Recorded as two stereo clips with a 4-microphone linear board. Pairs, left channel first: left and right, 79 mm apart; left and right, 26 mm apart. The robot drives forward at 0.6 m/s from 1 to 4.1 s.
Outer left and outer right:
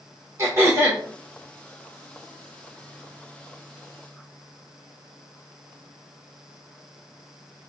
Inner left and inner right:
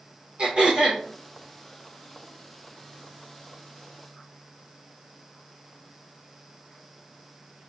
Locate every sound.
0.4 s throat clearing: 35° right (ahead or behind), 1.9 m